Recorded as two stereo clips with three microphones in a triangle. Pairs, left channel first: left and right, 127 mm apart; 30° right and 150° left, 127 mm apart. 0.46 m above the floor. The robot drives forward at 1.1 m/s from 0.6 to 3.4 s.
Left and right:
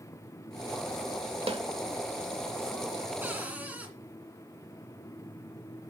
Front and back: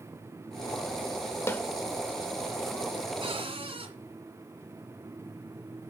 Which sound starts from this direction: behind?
A cupboard door, at 3.2 s.